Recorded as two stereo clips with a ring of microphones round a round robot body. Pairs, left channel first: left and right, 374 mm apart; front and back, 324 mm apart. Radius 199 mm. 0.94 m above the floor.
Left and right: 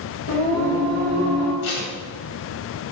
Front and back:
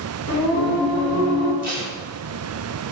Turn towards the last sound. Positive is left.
turn(degrees=95)